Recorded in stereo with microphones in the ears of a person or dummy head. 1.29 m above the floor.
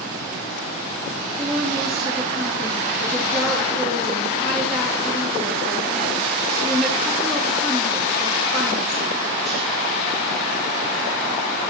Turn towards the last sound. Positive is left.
turn(degrees=0)  # may be behind; listen again after turning